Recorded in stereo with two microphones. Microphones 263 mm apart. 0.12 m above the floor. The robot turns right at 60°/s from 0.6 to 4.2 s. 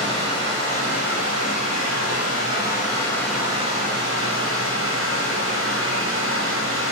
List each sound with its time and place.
0.0 s running water: 15° left, 5 m; by 6.9 s 125° right, 5 m